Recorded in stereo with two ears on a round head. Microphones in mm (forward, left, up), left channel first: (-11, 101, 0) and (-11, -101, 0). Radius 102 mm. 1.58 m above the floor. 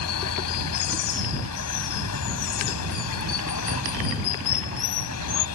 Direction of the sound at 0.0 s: 85° left.